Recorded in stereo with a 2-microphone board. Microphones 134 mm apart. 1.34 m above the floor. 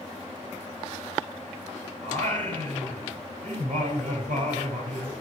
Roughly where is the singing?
Right.